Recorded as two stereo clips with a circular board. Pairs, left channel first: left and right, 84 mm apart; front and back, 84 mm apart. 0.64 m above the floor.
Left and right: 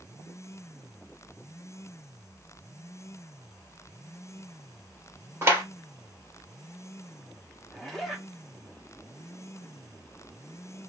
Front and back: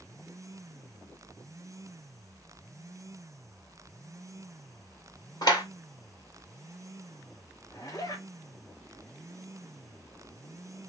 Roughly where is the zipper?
Ahead.